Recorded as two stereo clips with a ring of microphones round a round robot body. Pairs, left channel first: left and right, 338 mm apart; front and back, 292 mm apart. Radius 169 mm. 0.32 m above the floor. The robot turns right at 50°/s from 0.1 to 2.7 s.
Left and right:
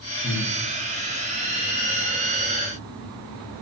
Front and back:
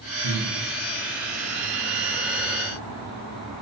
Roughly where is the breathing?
Behind.